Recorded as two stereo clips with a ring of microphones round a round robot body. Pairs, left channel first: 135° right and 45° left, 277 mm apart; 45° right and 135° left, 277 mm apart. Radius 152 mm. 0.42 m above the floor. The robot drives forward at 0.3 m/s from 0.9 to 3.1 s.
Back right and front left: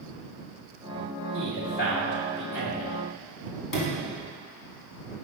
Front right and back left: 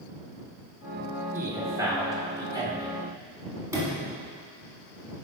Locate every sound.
1.3 s a man speaking: 150° right, 1.7 m; by 3.0 s 160° right, 2.0 m
3.7 s a sliding door: 145° right, 1.5 m